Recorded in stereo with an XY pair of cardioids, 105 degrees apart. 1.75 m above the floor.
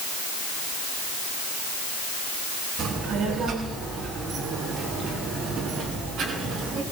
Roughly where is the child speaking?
Ahead right.